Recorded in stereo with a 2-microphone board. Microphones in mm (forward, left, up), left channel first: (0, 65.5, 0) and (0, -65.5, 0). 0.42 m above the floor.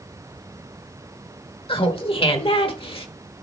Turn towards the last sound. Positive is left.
turn(degrees=45)  # may be behind; listen again after turning